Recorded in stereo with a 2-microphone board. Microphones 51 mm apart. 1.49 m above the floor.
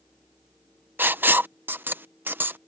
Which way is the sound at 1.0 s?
40° right (ahead or behind).